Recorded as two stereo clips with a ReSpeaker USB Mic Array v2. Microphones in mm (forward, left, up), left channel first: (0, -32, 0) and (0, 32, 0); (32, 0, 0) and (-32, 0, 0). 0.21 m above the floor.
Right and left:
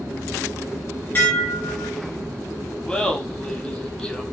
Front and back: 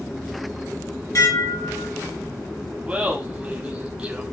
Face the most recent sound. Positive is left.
turn(degrees=-140)